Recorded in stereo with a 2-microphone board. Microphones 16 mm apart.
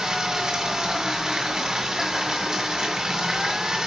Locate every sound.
0.0 s running water: 40° right (ahead or behind), 2 m